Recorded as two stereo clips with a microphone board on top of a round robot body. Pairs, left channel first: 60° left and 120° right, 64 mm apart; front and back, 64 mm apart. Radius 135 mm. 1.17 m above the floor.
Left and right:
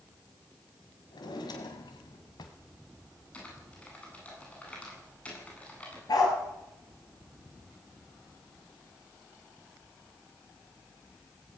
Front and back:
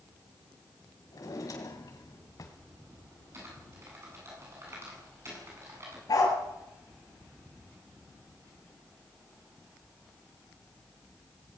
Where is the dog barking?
35° left, 5 m.